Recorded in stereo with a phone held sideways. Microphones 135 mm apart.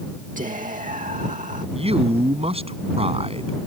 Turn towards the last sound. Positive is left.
turn(degrees=-45)  # may be behind; listen again after turning